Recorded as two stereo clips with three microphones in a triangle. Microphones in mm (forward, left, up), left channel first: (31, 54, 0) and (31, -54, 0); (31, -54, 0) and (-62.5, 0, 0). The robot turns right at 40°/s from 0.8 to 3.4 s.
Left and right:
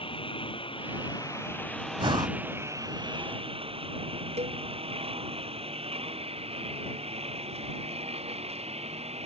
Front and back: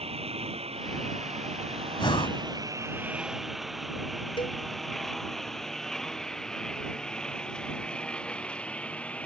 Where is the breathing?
65° right; by 2.4 s 45° right.